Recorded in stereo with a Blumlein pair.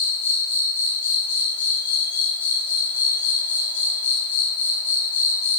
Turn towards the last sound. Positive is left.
turn(degrees=70)